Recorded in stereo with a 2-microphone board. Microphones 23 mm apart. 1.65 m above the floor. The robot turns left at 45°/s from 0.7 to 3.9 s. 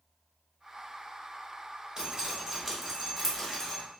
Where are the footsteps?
No footsteps in this recording.